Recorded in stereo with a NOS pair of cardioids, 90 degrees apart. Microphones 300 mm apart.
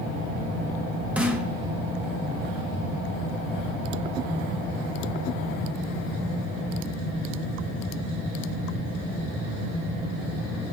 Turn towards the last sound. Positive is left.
turn(degrees=-5)